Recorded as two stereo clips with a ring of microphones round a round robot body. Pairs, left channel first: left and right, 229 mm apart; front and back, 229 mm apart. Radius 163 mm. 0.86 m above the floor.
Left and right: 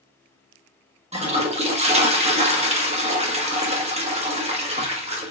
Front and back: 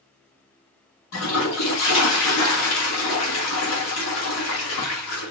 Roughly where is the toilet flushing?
Ahead right.